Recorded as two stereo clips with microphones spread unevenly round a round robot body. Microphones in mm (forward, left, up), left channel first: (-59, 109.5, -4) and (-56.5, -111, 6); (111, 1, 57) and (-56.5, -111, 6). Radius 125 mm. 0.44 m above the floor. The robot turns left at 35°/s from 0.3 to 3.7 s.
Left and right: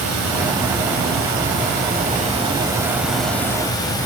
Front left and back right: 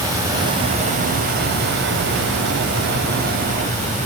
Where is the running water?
80° right, 1.9 m; by 4.1 s 160° left, 1.9 m.